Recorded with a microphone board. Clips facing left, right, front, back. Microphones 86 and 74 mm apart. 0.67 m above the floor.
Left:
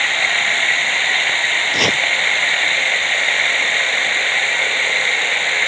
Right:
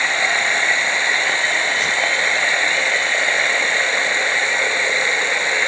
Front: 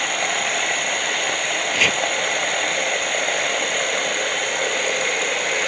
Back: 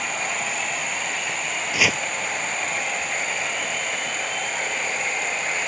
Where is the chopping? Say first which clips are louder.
Left 2 dB, even; 100° left.